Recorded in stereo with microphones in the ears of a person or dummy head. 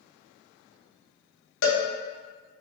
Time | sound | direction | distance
1.6 | a cowbell | 65° left (ahead or behind) | 0.6 m